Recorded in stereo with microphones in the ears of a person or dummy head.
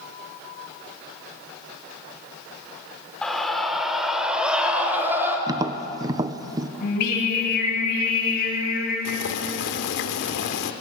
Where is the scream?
10° left (ahead or behind), 3 m; by 5.4 s 10° right (ahead or behind), 5 m.